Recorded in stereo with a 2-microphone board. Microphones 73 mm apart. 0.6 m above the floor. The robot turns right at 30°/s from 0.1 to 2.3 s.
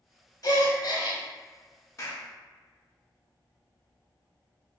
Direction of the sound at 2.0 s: 40° left (ahead or behind).